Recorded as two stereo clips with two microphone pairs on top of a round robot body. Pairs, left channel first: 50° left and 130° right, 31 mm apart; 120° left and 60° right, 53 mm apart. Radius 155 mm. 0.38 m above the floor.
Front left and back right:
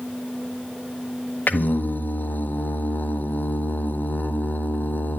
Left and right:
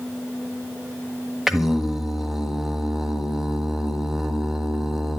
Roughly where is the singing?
Ahead left.